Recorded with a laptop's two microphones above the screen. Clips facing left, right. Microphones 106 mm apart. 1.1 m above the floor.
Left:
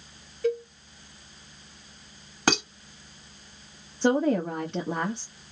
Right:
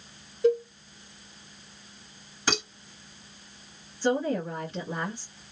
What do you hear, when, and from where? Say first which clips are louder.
0.4 s a cowbell: right 4 dB; 25° right (ahead or behind), 0.8 m
2.5 s dishes clattering: left 5 dB; 65° left (ahead or behind), 1.7 m
4.0 s a woman speaking: left 4 dB; 70° left (ahead or behind), 1.0 m